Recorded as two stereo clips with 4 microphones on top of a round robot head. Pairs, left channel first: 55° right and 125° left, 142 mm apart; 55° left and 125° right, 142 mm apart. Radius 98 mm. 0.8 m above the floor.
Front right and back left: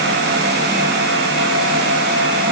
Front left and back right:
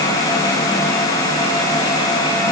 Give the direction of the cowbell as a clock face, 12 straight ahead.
No cowbell in this recording.